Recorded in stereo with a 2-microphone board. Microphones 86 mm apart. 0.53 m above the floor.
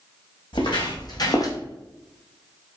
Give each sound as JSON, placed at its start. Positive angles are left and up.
{"t": 0.5, "sound": "footsteps", "side_deg": 60, "distance_m": 1.4}